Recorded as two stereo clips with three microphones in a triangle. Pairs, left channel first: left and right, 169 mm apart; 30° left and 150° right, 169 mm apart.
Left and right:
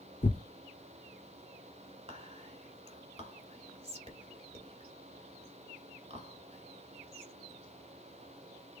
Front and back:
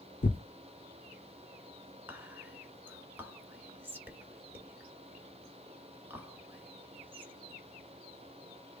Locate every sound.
0.2 s tearing paper: 55° left, 0.8 m
2.1 s whispering: 80° right, 1.4 m